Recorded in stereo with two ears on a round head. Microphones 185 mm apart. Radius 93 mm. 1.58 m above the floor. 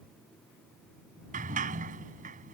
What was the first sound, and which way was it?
A sliding door, 35° right (ahead or behind).